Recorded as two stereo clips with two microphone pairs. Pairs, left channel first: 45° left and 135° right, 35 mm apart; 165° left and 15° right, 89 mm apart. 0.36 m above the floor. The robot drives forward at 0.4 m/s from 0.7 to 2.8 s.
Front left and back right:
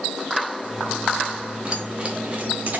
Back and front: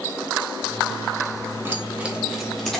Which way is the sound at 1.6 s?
80° right.